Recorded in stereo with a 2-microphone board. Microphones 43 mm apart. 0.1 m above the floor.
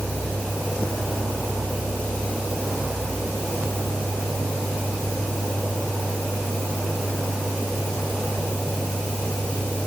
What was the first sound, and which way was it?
Only background noise.